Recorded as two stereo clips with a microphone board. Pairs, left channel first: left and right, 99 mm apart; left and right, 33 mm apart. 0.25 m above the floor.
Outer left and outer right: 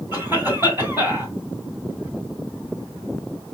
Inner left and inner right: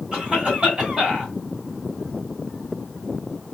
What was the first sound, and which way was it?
A cough, 25° right (ahead or behind).